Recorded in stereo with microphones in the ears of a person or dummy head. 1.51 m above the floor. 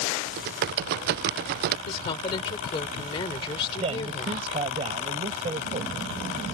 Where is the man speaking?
35° right (ahead or behind).